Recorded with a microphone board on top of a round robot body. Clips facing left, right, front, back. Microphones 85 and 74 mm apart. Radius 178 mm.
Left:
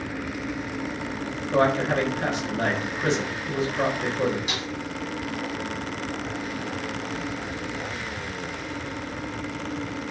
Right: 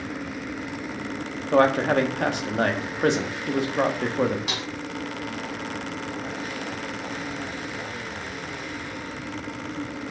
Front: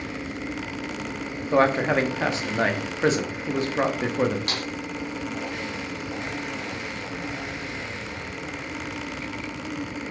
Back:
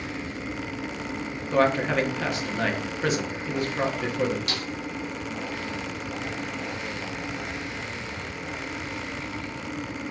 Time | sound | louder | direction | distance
1.5 | a man speaking | right 3 dB, front 2 dB | 65° right | 1.5 m
4.5 | a snare drum | even, front 1 dB | 55° right | 3 m